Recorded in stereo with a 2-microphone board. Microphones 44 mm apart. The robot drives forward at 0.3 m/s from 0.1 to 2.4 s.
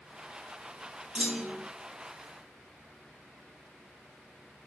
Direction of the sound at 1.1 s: 20° right (ahead or behind).